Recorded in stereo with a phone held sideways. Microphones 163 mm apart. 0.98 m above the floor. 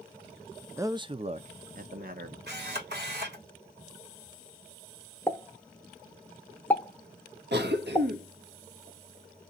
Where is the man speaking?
15° right (ahead or behind), 0.5 m; by 2.4 s 60° right (ahead or behind), 1.1 m.